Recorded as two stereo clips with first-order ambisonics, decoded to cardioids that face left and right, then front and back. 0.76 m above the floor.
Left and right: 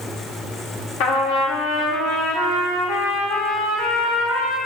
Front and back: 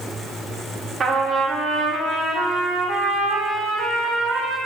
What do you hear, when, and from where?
1.0 s a trumpet: 110° left, 0.8 m